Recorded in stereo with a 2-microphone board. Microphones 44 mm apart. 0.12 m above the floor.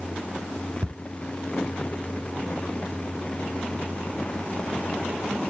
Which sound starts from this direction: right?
Ticking, at 0.8 s.